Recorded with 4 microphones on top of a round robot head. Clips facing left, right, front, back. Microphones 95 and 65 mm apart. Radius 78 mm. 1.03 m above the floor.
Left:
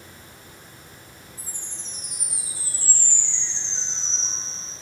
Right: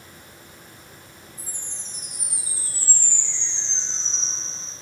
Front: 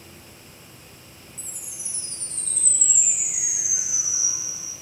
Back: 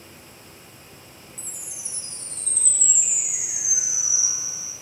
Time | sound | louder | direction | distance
1.4 | a chime | even, back 1 dB | 95° right | 2.0 m